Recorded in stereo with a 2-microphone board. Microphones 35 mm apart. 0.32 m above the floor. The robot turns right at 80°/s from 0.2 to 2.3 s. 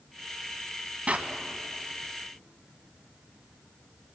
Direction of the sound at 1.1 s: 35° right (ahead or behind).